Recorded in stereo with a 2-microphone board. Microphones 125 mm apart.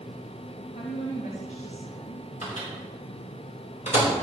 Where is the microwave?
80° left, 4.5 m.